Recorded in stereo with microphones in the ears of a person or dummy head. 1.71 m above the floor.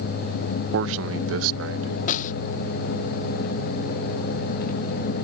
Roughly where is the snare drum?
Left.